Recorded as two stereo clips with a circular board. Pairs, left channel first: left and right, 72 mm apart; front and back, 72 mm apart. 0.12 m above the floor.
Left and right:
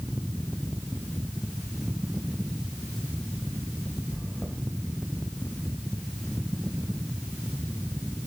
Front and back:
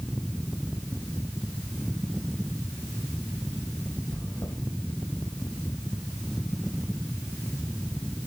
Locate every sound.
4.1 s chewing: 20° left, 4 m